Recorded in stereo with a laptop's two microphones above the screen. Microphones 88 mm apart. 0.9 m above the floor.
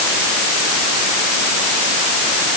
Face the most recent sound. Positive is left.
No sound to turn to.